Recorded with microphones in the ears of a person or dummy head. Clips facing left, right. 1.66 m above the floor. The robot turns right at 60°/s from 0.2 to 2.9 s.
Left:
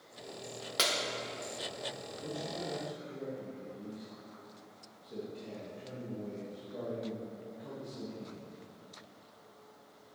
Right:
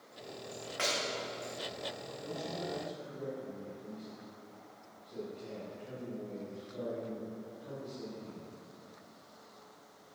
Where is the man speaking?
65° left, 2.5 m; by 8.5 s 105° left, 2.5 m.